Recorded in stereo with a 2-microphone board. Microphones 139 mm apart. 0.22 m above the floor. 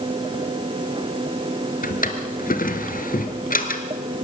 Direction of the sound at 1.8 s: 75° left (ahead or behind).